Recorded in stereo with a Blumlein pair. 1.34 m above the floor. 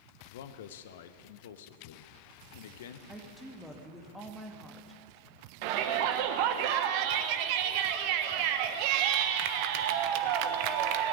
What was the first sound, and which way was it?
A man speaking, 55° left.